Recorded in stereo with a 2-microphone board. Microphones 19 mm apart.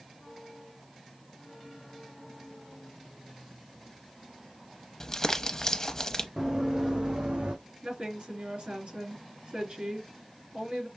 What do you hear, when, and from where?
5.0 s crumpling: 25° left (ahead or behind), 0.7 m
6.4 s running footsteps: 30° right (ahead or behind), 1.2 m; by 7.5 s 70° right (ahead or behind), 1.2 m
7.8 s a woman speaking: 65° right (ahead or behind), 3.5 m